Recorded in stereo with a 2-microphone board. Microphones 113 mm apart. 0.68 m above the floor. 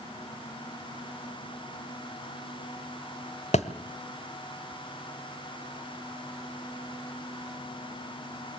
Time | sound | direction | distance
3.5 | a thud | 75° left (ahead or behind) | 1.2 m